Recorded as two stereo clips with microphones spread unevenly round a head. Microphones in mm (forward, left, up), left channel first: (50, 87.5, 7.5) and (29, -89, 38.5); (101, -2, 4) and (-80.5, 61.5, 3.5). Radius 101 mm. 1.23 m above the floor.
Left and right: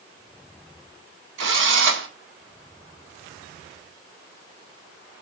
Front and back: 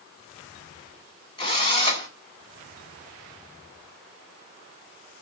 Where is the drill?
85° right, 2.0 m.